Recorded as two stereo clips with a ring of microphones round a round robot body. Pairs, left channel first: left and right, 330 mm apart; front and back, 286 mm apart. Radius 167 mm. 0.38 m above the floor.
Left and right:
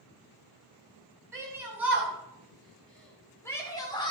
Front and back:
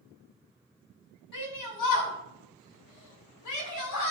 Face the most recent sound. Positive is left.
turn(degrees=15)